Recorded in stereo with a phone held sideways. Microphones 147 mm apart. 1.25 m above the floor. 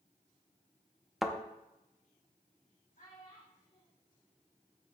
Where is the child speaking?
65° left (ahead or behind), 3.5 m.